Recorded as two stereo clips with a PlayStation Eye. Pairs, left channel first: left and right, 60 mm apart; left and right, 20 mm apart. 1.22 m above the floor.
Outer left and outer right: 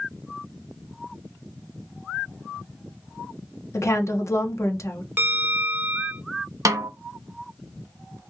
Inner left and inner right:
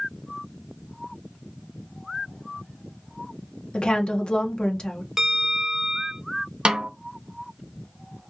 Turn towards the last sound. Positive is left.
turn(degrees=-70)  # may be behind; listen again after turning